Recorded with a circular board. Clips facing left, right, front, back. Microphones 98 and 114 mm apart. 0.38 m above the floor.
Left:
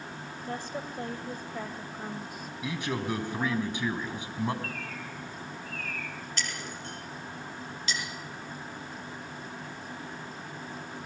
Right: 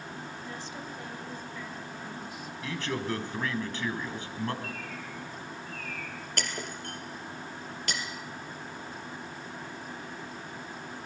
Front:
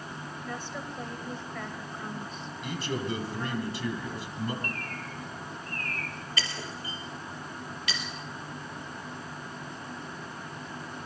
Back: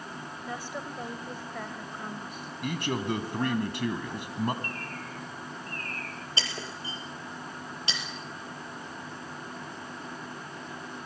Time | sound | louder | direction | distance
0.5 | a woman speaking | left 4 dB, back 1 dB | 105° left | 2 m
2.6 | a man speaking | left 1 dB, back 3 dB | 165° left | 2.5 m
4.6 | a bird | left 1 dB, front 1 dB | 120° left | 3 m
6.4 | breaking glass | right 3 dB, even | 120° right | 3.5 m